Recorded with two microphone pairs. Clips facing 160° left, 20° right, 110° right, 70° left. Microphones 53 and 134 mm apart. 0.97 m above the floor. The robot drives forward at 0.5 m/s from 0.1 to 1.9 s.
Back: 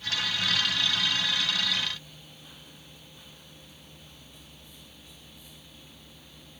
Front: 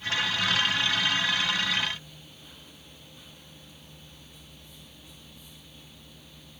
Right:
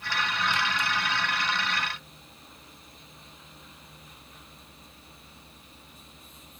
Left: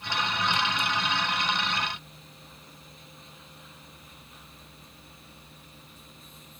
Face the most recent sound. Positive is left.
No sound to turn to.